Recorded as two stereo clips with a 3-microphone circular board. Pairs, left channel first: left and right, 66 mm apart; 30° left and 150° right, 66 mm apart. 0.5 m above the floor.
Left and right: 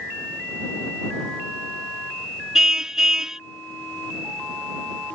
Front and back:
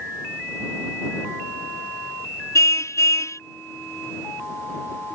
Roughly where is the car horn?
Ahead.